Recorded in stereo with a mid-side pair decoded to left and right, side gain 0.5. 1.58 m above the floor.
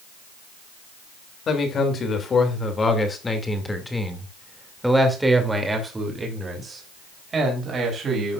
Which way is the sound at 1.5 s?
50° left.